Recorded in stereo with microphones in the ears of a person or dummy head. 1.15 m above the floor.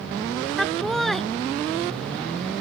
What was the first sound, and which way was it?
Laughter, centre (ahead or behind).